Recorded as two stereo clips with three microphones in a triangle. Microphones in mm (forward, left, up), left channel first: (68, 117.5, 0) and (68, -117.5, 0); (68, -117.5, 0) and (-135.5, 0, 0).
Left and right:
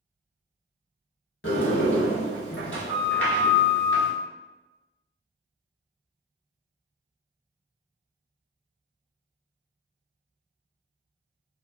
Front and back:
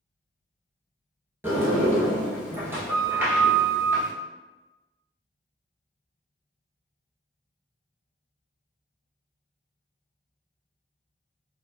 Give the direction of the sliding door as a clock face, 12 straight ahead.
10 o'clock.